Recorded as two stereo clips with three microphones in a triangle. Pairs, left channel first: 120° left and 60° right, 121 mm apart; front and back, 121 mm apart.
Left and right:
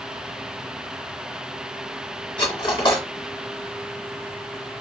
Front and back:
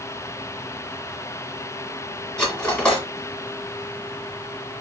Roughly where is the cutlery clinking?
Left.